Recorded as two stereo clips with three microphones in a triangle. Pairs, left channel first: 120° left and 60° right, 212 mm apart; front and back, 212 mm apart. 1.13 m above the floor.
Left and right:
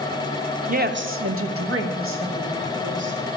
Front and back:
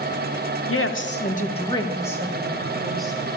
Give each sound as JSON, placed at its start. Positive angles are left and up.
{"t": 0.7, "sound": "a woman speaking", "azimuth_deg": -5, "distance_m": 0.8}